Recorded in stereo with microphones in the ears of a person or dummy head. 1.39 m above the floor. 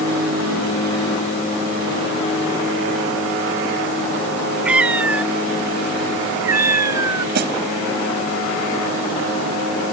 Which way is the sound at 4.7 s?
5° right (ahead or behind).